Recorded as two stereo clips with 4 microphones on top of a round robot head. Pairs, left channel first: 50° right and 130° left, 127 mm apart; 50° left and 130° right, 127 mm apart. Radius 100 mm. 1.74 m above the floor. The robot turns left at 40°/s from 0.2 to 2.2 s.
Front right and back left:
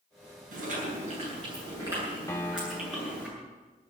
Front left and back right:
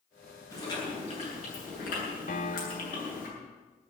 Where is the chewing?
120° left, 9 m; by 3.3 s 50° left, 9 m.